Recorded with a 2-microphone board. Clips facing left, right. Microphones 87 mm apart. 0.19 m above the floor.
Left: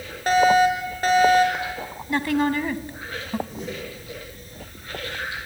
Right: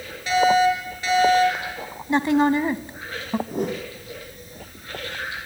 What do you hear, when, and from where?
0.3 s a fire alarm: 50° left (ahead or behind), 6 m
2.1 s a woman speaking: 25° right (ahead or behind), 1.1 m
3.5 s a whoosh: 55° right (ahead or behind), 2.5 m